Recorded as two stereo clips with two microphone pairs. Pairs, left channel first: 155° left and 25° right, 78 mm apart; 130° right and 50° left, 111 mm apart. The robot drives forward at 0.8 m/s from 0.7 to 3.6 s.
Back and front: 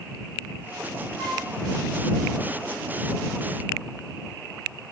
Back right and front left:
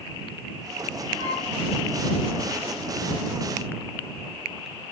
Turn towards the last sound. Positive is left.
turn(degrees=-75)